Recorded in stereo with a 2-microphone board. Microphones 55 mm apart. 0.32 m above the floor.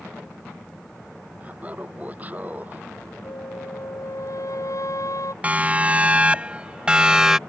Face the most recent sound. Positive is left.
turn(degrees=-10)  # may be behind; listen again after turning